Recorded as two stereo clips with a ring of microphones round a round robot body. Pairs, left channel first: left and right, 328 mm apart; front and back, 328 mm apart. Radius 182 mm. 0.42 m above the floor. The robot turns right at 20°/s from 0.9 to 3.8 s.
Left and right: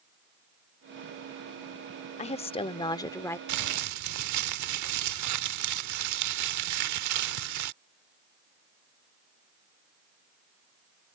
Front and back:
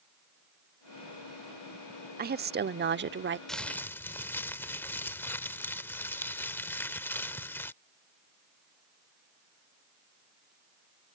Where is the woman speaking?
145° left; by 3.4 s 170° left.